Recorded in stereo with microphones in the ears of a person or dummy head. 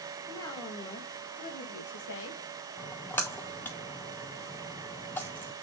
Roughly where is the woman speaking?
Centre.